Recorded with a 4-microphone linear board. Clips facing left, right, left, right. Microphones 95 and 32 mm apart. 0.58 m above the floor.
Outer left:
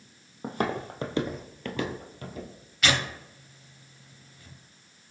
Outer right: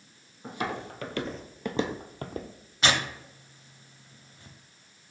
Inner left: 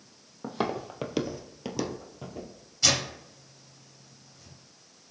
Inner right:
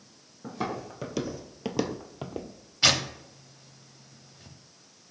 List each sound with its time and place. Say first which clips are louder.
0.4 s footsteps: outer left 4 dB, inner left 2 dB; 50° left (ahead or behind), 0.9 m; by 2.5 s 55° right (ahead or behind), 0.9 m
2.8 s tearing paper: even, inner right 3 dB; 30° right (ahead or behind), 0.6 m